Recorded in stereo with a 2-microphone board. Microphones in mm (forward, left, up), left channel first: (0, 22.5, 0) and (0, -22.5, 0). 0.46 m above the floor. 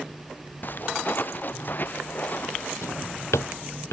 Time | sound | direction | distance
0.6 | footsteps | 45° left (ahead or behind) | ?
2.8 | a drawer | 85° left | ?